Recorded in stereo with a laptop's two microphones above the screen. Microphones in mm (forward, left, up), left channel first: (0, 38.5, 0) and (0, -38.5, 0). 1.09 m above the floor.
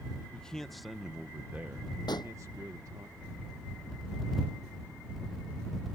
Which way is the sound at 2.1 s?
80° left.